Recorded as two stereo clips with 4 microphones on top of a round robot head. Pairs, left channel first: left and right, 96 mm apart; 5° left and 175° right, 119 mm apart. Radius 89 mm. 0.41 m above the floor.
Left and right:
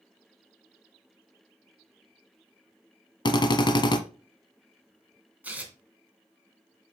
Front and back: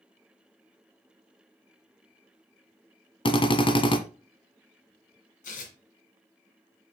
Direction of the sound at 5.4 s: 15° right.